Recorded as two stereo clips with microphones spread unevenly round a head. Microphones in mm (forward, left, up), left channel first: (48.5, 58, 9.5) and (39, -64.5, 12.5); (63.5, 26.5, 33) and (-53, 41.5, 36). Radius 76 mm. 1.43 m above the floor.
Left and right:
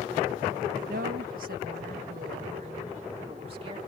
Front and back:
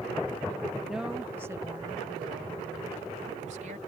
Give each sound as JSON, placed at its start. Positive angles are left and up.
{"t": 0.9, "sound": "a woman speaking", "azimuth_deg": -100}